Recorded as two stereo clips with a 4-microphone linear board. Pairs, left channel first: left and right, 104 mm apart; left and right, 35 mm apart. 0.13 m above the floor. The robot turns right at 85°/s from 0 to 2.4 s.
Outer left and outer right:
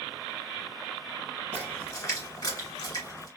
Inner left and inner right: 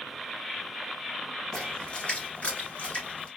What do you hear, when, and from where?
1.5 s a splash: 10° left (ahead or behind), 1.8 m; by 3.3 s 30° left (ahead or behind), 1.8 m